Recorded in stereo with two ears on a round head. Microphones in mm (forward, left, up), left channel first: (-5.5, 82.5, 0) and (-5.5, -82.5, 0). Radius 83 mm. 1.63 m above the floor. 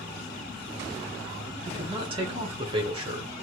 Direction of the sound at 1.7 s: 30° right (ahead or behind).